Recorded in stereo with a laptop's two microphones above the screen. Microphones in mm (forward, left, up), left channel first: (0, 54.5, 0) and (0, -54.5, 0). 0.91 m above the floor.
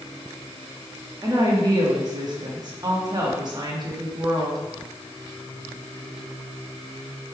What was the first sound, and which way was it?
A woman speaking, 35° right (ahead or behind).